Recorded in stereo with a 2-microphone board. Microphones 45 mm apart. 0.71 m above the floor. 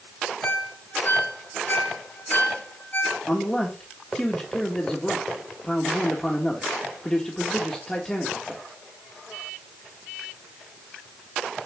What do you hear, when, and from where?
0.4 s a ringtone: 45° left (ahead or behind), 4.5 m
3.3 s a man speaking: 15° left (ahead or behind), 1.6 m